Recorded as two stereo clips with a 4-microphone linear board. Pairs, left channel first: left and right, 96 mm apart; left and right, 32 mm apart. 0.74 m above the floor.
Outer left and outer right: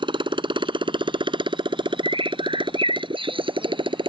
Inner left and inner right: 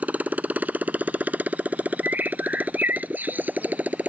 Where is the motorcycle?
55° right (ahead or behind).